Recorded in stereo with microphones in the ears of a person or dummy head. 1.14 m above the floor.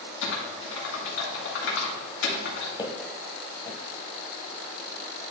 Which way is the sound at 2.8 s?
25° left (ahead or behind).